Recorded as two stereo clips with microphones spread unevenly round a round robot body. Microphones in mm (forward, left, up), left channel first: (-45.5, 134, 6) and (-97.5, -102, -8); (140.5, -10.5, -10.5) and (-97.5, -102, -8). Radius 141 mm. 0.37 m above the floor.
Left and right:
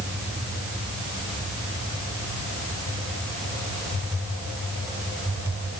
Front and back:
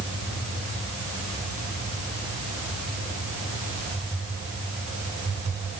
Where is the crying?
No crying in this recording.